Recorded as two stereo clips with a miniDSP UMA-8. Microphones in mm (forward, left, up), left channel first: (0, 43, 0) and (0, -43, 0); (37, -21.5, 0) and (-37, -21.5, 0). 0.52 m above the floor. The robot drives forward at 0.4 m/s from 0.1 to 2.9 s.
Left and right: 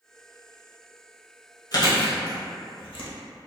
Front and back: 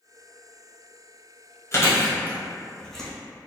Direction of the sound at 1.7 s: 50° left.